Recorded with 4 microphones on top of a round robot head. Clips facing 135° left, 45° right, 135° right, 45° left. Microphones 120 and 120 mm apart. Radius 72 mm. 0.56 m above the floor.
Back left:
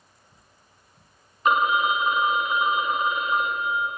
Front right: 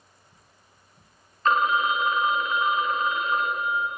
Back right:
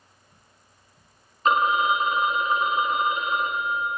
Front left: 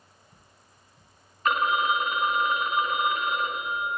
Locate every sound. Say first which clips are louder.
1.4 s a phone ringing: back left 1 dB, back right 3 dB; 170° right, 0.7 m